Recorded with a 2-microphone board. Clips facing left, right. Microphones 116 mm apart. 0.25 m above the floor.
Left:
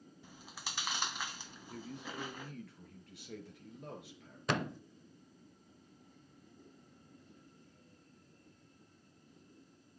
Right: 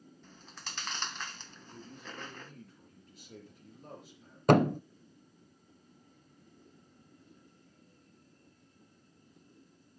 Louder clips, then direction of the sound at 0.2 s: Left 1 dB; 10° left (ahead or behind).